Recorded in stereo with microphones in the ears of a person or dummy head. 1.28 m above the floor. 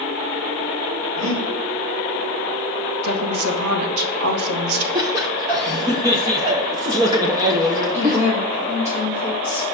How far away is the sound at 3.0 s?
About 1.8 m.